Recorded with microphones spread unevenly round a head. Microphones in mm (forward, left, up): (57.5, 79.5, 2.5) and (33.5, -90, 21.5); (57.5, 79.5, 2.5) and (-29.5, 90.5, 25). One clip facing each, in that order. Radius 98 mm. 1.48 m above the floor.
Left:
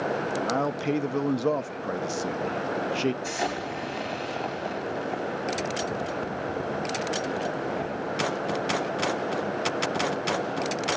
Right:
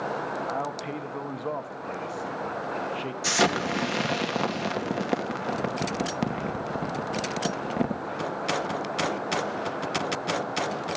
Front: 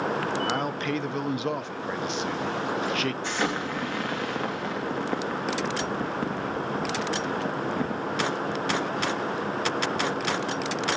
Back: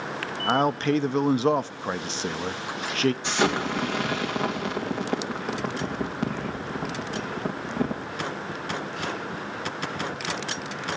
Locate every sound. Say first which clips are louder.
0.5 s a man speaking: left 5 dB, back 5 dB; 130° left, 0.6 m
3.2 s an explosion: right 4 dB, back 3 dB; 105° right, 2.5 m